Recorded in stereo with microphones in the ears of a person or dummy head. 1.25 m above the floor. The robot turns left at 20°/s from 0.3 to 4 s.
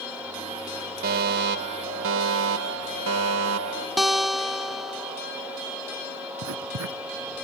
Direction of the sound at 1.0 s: 50° right.